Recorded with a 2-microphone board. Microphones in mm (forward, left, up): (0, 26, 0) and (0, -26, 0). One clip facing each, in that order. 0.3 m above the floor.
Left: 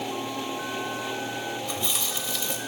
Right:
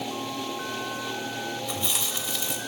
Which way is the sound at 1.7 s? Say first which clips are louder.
Even; 10° right (ahead or behind).